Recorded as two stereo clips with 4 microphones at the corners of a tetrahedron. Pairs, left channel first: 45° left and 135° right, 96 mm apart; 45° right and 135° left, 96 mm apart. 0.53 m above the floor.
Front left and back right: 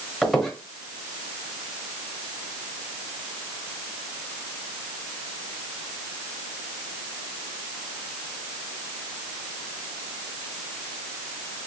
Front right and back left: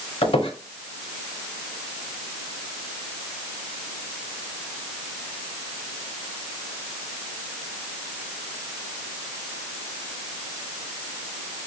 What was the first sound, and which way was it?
A squeak, 45° right.